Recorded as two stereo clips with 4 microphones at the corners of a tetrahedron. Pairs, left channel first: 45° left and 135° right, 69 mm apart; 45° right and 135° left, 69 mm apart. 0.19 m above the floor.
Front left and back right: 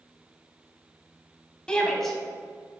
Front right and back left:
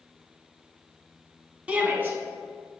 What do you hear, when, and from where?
1.7 s a shout: 105° left, 1.0 m; by 2.8 s 145° left, 1.3 m